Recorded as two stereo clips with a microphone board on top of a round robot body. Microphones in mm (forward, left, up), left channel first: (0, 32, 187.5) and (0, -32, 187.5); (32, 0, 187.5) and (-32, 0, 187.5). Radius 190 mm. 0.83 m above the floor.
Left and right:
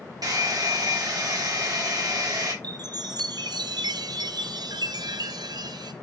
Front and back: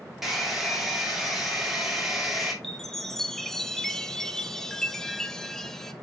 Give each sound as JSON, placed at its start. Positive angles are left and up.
{"t": 0.2, "sound": "a hair dryer", "azimuth_deg": -95, "distance_m": 3.0}
{"t": 2.6, "sound": "a chime", "azimuth_deg": -85, "distance_m": 0.8}